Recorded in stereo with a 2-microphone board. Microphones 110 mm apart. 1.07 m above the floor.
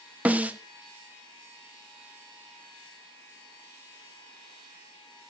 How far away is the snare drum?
About 1.2 m.